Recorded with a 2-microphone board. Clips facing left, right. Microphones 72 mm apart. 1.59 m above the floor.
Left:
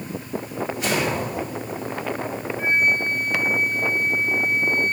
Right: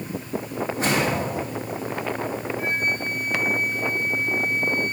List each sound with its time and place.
0.8 s a whoosh: 30° right (ahead or behind), 3 m
2.6 s a flute: 25° left (ahead or behind), 1.4 m